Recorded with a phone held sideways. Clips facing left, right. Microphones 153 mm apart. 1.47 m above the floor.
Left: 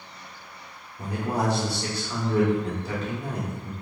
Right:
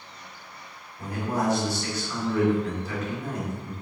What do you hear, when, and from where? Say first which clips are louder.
1.0 s a man speaking: even; 30° left (ahead or behind), 1.7 m